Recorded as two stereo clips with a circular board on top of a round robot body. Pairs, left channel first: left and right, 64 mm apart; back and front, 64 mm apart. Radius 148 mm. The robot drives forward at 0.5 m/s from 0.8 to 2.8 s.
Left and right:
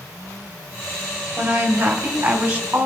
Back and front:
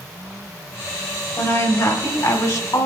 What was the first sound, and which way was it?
A woman speaking, 155° right.